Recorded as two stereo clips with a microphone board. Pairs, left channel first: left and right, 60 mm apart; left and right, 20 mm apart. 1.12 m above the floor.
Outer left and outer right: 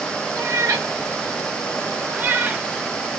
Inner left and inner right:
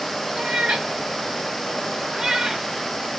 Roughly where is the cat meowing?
Right.